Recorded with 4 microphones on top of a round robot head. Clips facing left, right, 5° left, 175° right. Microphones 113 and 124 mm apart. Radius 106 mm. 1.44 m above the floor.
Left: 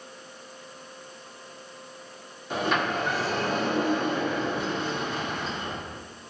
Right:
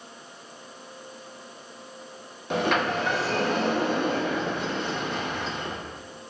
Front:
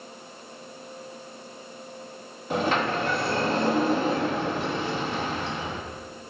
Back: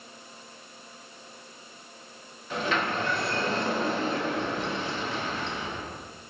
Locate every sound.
2.5 s a sliding door: 60° right, 1.3 m